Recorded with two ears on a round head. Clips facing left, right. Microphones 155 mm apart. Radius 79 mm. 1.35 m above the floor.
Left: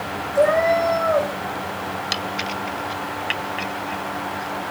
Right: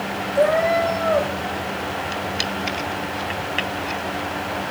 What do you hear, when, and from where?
0.3 s a cat meowing: 5° left (ahead or behind), 3.5 m